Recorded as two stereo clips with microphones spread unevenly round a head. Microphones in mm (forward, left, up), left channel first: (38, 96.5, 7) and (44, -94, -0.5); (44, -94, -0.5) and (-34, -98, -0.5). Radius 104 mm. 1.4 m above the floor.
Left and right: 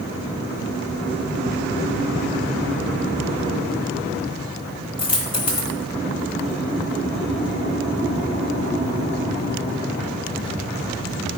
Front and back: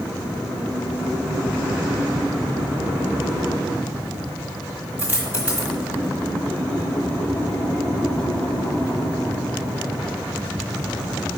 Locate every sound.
5.0 s a dropped coin: 130° left, 1.4 m